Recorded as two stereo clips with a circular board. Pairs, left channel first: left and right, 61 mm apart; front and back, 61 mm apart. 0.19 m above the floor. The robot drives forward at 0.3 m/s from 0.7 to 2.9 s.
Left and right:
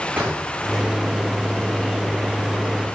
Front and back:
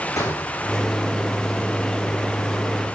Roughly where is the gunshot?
Ahead right.